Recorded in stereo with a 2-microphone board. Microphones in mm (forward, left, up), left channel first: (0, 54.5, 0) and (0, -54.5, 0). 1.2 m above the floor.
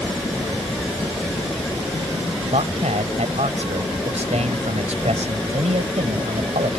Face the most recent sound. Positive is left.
turn(degrees=-90)